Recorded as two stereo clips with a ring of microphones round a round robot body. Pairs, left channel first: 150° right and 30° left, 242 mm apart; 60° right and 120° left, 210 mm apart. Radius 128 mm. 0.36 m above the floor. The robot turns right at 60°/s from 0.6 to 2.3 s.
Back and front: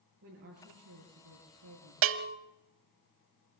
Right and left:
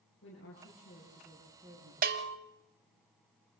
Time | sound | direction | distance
0.2 | a woman speaking | 15° right | 8 m
2.0 | a bell | 65° left | 0.8 m